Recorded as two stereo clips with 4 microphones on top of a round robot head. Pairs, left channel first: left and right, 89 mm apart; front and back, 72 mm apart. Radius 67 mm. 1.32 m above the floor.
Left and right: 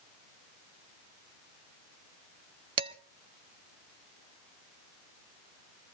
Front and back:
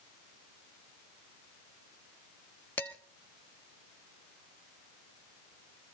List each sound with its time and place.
2.8 s dishes clattering: 75° right, 0.8 m